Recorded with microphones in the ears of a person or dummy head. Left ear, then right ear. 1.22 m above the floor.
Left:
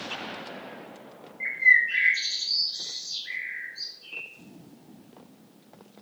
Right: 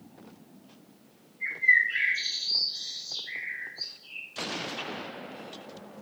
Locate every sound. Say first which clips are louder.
1.4 s a bird: left 3 dB; 70° left (ahead or behind), 0.9 m